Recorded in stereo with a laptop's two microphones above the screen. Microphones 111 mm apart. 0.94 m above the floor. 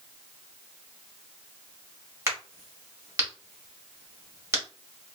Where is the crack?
25° right (ahead or behind), 1.1 m.